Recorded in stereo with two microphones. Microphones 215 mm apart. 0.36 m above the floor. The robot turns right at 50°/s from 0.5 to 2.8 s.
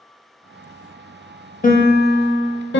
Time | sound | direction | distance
1.6 | a piano | 45° left | 0.6 m